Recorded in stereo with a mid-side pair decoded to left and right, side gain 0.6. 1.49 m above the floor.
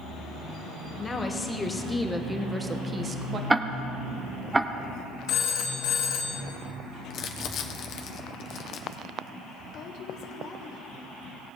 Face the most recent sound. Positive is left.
turn(degrees=55)